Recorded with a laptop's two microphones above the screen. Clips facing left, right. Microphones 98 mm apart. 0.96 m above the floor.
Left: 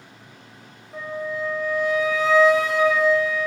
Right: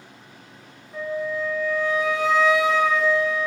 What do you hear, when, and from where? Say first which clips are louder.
0.9 s a flute: right 2 dB; 45° left (ahead or behind), 0.6 m